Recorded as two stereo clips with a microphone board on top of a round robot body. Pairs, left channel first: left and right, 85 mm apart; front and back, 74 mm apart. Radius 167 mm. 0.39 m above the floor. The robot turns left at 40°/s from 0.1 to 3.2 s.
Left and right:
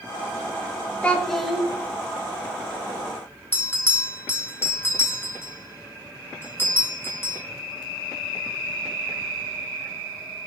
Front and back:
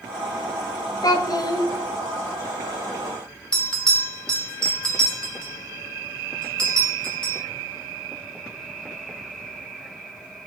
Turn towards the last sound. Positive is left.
turn(degrees=70)